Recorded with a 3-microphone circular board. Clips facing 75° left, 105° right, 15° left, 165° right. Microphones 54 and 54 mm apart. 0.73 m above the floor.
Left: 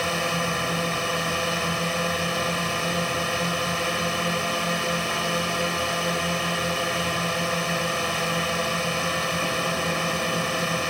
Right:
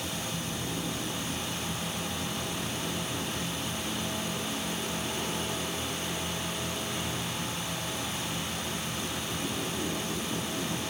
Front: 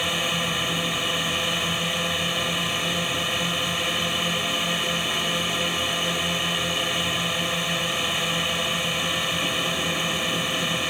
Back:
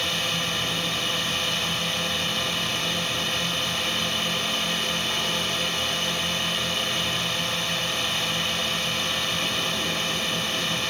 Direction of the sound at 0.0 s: 90° left.